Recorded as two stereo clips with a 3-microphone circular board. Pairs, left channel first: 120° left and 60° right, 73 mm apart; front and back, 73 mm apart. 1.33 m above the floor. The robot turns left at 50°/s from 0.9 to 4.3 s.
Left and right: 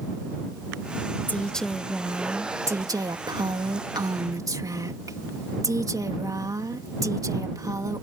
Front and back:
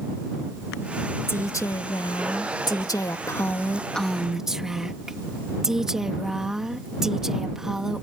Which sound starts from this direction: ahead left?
A woman speaking, at 1.3 s.